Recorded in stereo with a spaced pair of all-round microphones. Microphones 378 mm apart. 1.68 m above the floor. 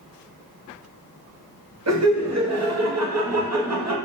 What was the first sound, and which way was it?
Laughter, 45° right (ahead or behind).